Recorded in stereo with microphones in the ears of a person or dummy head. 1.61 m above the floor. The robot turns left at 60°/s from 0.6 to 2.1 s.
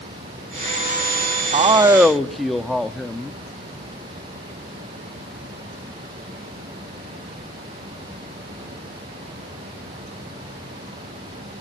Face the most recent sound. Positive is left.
turn(degrees=180)